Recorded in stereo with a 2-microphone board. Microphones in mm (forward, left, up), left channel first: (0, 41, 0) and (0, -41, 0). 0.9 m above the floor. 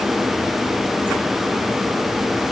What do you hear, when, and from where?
Only background noise.